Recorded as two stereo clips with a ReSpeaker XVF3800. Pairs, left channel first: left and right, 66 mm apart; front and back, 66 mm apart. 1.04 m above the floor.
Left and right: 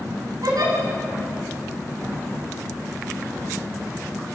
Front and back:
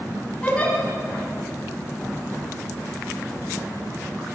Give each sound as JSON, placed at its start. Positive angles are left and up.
{"t": 0.4, "sound": "a giggle", "azimuth_deg": -70, "distance_m": 6.0}